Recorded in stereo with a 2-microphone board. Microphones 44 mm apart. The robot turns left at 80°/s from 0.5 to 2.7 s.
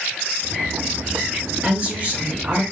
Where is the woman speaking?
55° right, 2 m; by 2.6 s 135° right, 2 m.